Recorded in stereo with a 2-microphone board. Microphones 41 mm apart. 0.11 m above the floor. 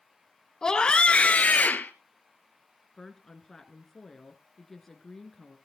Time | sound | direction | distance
0.6 | a scream | 15° left (ahead or behind) | 1.1 m
3.0 | a woman speaking | 10° left (ahead or behind) | 1.7 m